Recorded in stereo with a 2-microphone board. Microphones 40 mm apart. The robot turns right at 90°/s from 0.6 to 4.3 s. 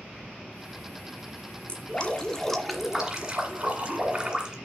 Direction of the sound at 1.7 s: 25° left (ahead or behind).